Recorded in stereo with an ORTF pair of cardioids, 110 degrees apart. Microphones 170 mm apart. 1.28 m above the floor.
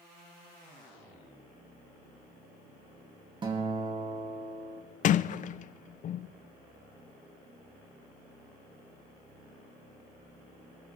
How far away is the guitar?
About 2.5 m.